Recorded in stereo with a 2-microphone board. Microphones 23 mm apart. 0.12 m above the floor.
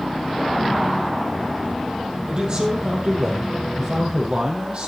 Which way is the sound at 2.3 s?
35° right (ahead or behind).